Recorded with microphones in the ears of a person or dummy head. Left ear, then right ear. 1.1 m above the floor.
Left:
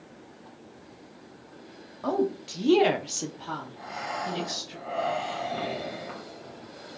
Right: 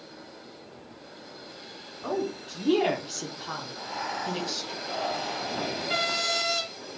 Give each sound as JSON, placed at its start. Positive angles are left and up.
{"t": 2.0, "sound": "a woman speaking", "side_deg": 20, "distance_m": 1.1}
{"t": 3.8, "sound": "breathing", "side_deg": -15, "distance_m": 1.4}